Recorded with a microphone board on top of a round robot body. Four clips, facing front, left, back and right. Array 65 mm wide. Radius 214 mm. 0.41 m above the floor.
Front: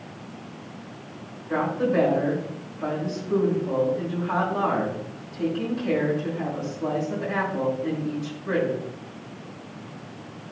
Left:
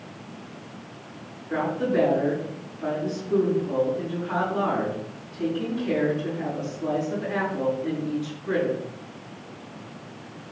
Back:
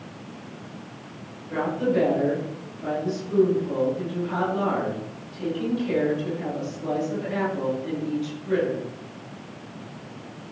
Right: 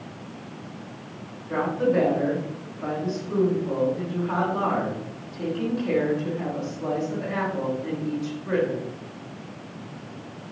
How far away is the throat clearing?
No throat clearing in this recording.